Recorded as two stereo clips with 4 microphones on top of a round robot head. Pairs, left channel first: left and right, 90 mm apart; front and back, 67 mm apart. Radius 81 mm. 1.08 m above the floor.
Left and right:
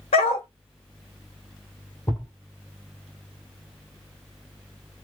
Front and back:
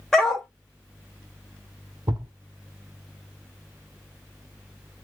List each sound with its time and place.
0.1 s a dog barking: 85° left, 1.0 m
2.1 s a thud: 155° left, 1.4 m